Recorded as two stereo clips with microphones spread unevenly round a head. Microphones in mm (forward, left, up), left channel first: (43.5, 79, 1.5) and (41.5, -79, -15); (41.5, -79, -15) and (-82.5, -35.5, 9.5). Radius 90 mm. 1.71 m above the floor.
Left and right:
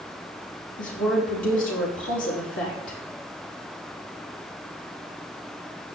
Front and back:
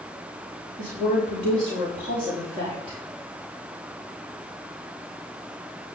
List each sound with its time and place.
0.8 s a woman speaking: 110° left, 4.5 m